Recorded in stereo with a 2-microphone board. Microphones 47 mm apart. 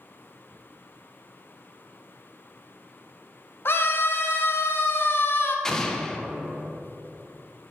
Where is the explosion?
10° left (ahead or behind), 0.6 m.